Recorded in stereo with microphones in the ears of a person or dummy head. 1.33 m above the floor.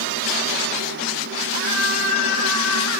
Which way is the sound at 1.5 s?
80° right.